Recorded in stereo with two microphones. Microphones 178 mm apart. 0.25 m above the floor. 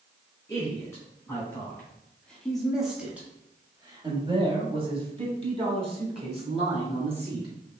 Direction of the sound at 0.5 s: 15° left (ahead or behind).